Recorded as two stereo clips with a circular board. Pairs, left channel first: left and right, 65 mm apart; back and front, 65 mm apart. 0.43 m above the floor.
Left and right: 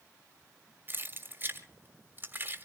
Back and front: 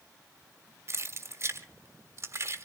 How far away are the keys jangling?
About 1.6 m.